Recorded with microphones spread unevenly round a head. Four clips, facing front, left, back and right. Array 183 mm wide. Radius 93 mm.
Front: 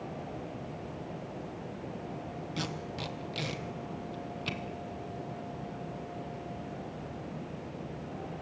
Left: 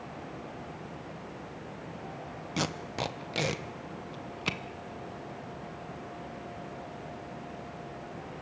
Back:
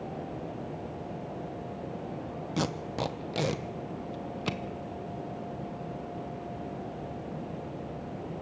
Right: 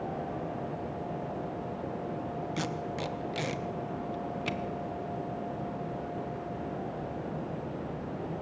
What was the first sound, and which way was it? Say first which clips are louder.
Tape being pulled: left 5 dB, back 8 dB; 160° left.